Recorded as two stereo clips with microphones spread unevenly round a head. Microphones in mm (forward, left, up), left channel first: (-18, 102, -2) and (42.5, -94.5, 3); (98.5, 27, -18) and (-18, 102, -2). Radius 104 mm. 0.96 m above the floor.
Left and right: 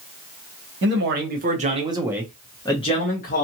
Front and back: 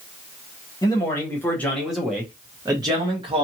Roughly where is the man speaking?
Right.